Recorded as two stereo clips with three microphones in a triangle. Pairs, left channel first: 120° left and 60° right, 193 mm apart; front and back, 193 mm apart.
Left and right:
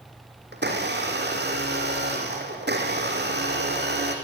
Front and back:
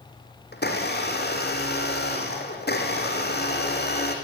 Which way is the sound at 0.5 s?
30° right.